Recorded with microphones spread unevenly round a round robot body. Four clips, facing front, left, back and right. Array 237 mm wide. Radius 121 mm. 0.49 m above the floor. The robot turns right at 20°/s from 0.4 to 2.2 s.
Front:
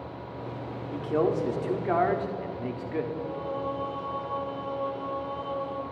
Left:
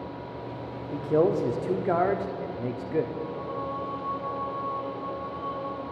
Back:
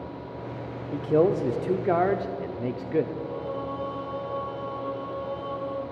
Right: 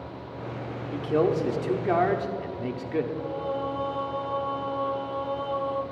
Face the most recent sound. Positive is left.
turn(degrees=-80)